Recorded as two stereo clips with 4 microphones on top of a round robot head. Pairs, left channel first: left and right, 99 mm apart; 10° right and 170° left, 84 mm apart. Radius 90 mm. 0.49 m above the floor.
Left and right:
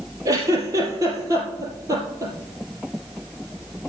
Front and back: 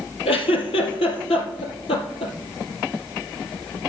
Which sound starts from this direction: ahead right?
A giggle, at 0.2 s.